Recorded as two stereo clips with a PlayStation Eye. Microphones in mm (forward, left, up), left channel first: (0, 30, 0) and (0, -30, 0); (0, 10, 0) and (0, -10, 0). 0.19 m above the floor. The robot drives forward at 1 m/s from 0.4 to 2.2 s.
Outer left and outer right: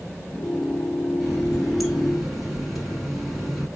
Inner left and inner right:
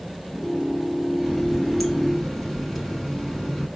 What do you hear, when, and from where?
1.2 s a running tap: centre (ahead or behind), 2 m; by 3.7 s 5° right (ahead or behind), 1.3 m